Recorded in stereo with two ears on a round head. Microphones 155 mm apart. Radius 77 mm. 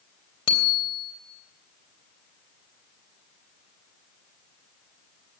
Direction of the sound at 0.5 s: 30° left (ahead or behind).